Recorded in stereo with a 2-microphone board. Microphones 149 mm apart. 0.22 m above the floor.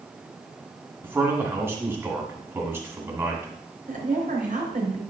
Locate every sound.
1.0 s a man speaking: 15° right (ahead or behind), 2.0 m
3.9 s a woman speaking: 65° right (ahead or behind), 3.5 m